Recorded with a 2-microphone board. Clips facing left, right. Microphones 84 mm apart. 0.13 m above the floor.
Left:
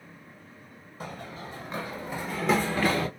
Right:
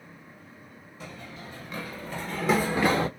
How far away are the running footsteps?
About 1.1 m.